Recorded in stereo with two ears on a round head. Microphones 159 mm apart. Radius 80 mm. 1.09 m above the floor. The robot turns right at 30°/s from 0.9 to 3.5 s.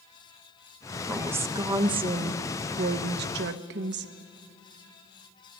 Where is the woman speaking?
175° right, 0.9 m; by 4.1 s 100° right, 0.9 m.